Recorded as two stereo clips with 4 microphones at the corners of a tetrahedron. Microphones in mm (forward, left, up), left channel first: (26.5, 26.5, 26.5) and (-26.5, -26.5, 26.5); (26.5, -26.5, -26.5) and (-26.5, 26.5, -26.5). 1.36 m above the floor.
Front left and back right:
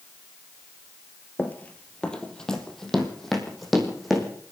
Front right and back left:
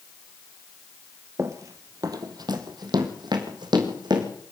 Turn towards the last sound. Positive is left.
turn(degrees=135)